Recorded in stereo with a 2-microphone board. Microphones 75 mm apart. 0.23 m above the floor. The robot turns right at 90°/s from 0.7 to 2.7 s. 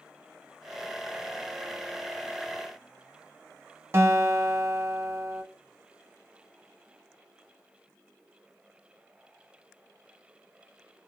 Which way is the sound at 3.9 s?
40° right (ahead or behind).